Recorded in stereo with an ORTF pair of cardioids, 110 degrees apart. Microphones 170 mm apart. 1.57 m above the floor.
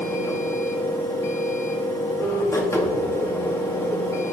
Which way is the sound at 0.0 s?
15° left.